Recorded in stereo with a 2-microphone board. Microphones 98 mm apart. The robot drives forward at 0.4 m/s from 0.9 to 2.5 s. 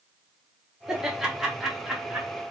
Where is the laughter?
5° right (ahead or behind), 1.2 m.